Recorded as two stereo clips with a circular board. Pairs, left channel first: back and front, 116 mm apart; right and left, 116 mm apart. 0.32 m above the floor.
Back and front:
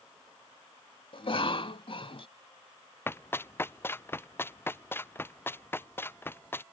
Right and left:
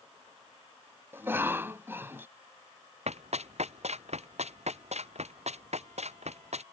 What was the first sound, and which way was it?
A cough, 155° left.